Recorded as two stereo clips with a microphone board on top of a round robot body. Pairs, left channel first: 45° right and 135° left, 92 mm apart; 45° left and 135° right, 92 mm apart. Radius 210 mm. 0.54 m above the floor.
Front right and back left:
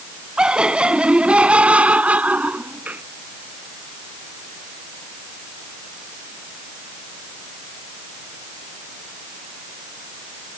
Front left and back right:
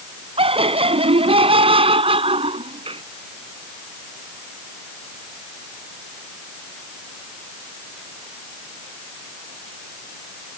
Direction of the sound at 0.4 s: 145° right.